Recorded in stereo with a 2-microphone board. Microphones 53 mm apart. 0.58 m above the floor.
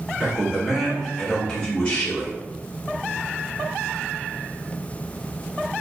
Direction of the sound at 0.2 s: 20° right (ahead or behind).